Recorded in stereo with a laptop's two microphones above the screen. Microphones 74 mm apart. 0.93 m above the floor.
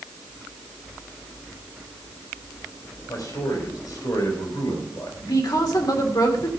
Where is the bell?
I don't hear a bell.